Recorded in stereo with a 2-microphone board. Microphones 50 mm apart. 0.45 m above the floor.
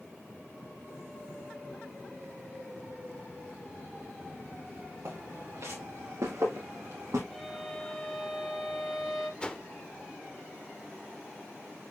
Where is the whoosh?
20° left (ahead or behind), 0.9 m.